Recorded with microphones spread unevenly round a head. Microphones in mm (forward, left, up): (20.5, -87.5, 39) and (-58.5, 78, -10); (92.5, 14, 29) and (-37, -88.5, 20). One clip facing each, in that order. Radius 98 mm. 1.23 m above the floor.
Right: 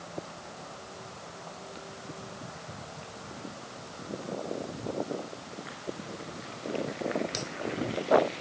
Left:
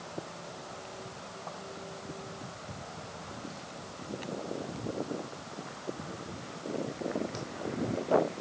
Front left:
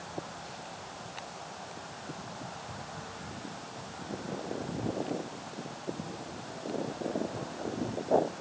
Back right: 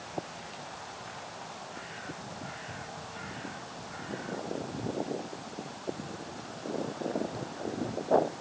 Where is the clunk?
I don't hear a clunk.